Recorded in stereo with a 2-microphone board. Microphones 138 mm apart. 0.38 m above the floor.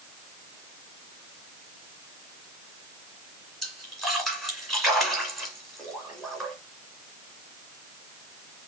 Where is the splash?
Centre (ahead or behind), 2.5 m.